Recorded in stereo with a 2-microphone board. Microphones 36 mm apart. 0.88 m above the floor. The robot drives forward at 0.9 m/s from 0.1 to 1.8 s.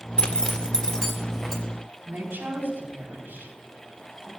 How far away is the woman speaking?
About 5 m.